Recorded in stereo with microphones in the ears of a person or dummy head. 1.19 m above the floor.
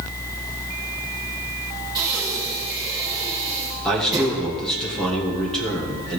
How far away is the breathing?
About 4.5 m.